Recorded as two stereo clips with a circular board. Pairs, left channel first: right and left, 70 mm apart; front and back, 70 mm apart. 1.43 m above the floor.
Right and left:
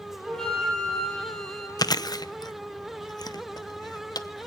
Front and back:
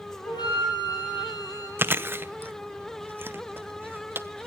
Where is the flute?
5° right, 8.5 m.